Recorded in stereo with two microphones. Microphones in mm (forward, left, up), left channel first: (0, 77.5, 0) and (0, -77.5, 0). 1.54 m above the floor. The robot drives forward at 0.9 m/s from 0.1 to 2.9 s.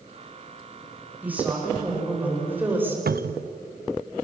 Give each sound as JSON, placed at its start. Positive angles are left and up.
{"t": 1.2, "sound": "a woman speaking", "side_deg": -10, "distance_m": 7.0}
{"t": 3.1, "sound": "a cupboard door", "side_deg": -80, "distance_m": 0.5}